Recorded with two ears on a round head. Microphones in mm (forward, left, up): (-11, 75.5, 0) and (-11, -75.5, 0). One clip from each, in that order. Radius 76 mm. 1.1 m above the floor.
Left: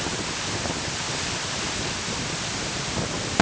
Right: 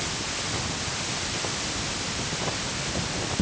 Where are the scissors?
I don't hear scissors.